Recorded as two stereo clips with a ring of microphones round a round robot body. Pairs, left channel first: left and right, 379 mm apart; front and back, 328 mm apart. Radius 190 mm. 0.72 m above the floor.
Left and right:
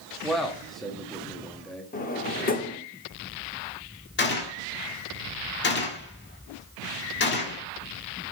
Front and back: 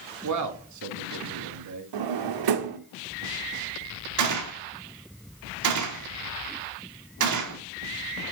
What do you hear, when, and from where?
0.2 s a man speaking: straight behind, 1.1 m
1.9 s a drawer: 160° left, 1.0 m
4.2 s a gunshot: 150° left, 1.7 m